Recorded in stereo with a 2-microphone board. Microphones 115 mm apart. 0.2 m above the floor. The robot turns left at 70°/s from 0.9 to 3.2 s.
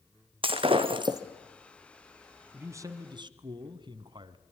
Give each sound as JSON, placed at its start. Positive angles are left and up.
{"t": 0.4, "sound": "breaking glass", "side_deg": -50, "distance_m": 2.0}
{"t": 2.5, "sound": "a man speaking", "azimuth_deg": -25, "distance_m": 1.7}